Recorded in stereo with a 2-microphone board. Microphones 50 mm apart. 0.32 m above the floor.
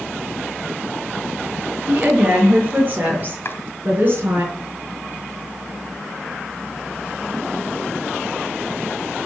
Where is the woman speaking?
25° right (ahead or behind), 6 m; by 4.5 s 45° right (ahead or behind), 6 m.